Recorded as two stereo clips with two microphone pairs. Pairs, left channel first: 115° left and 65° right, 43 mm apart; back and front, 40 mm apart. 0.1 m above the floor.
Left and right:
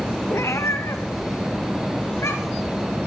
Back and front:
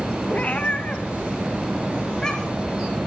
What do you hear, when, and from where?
0.3 s a cat meowing: 125° left, 1.7 m; by 2.7 s 100° left, 3.5 m